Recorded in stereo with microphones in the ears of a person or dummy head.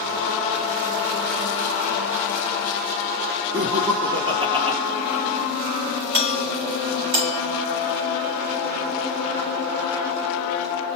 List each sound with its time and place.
3.5 s laughter: 35° right (ahead or behind), 0.8 m
6.1 s a doorbell: 55° right (ahead or behind), 1.8 m